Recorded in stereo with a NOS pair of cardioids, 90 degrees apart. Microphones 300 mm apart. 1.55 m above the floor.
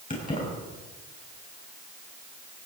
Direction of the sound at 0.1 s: 30° left.